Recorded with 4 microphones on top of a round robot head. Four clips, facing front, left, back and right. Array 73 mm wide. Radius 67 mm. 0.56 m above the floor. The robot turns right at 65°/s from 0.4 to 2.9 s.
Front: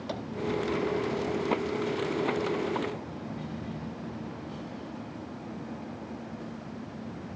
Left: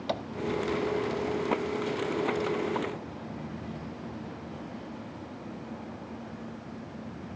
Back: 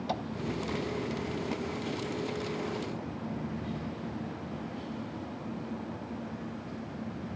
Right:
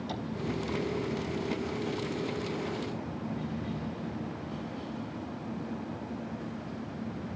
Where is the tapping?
80° left, 2 m.